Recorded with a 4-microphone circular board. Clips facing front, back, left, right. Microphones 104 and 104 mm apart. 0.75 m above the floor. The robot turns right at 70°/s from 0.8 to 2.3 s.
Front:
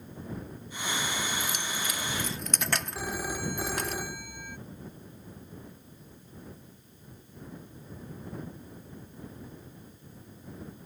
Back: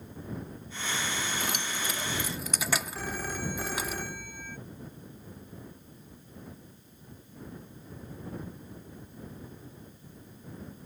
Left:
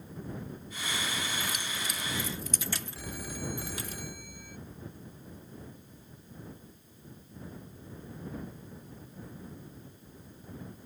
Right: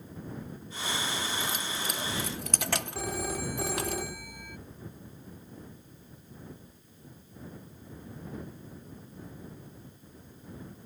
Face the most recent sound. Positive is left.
turn(degrees=-80)